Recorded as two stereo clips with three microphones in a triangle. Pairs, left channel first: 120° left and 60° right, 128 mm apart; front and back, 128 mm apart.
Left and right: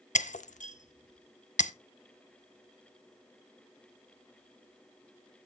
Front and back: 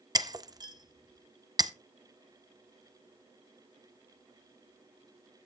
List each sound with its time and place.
0.1 s breaking glass: 120° left, 0.6 m